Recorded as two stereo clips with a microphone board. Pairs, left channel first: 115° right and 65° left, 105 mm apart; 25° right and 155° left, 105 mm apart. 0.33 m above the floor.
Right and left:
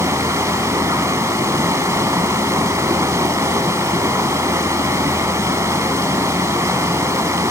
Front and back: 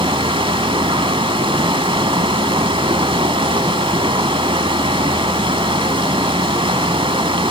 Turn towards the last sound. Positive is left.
turn(degrees=130)